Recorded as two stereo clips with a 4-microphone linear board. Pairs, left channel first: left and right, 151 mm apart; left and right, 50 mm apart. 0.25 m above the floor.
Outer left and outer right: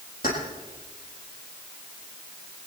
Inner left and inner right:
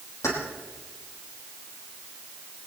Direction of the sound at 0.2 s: 60° left (ahead or behind).